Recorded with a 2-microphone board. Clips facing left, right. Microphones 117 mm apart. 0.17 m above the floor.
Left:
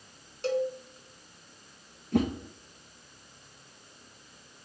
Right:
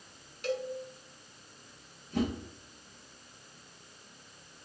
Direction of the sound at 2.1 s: 60° left (ahead or behind).